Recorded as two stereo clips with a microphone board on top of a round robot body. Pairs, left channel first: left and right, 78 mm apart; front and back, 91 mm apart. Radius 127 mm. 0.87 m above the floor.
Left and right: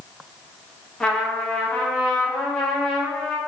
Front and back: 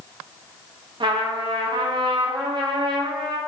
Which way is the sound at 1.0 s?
170° left.